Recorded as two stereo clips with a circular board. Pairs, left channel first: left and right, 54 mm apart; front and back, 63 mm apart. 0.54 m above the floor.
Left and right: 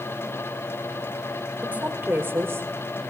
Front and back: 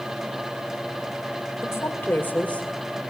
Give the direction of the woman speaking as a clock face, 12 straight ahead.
1 o'clock.